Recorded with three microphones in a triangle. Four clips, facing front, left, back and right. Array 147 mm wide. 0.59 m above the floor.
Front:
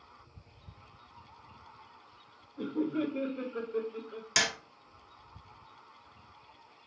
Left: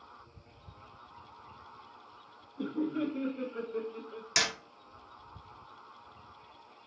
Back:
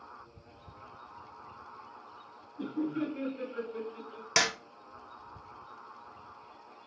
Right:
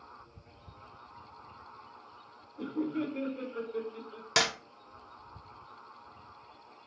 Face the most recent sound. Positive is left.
turn(degrees=-125)